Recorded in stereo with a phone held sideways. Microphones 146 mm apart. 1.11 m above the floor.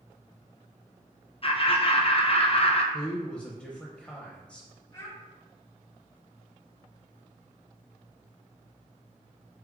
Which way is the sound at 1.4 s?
45° left (ahead or behind).